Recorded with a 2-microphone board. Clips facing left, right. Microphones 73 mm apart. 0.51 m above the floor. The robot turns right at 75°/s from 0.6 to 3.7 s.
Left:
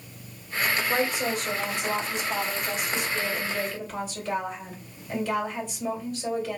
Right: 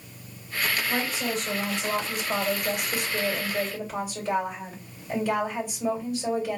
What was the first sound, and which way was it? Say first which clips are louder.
A woman speaking: left 2 dB; 135° left.